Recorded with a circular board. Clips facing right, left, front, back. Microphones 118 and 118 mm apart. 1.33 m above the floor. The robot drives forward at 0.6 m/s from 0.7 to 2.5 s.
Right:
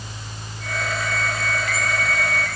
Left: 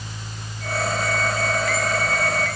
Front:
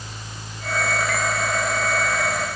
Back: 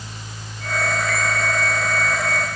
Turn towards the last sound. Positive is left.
No sound to turn to.